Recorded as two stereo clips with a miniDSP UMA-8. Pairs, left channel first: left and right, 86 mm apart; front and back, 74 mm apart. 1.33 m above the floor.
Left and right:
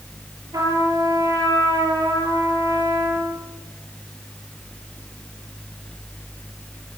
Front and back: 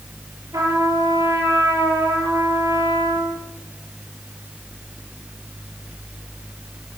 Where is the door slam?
I don't hear a door slam.